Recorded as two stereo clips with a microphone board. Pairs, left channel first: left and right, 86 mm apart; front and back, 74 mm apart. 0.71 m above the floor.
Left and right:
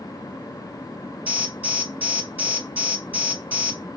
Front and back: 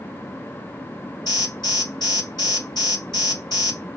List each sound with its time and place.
1.3 s an alarm: 20° right, 3 m